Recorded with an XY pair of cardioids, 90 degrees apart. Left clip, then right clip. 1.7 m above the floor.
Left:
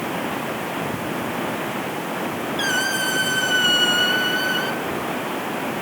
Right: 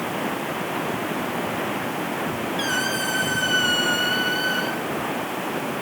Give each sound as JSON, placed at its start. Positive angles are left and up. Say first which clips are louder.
{"t": 2.6, "sound": "a squeak", "louder": "left 3 dB", "azimuth_deg": 15, "distance_m": 4.5}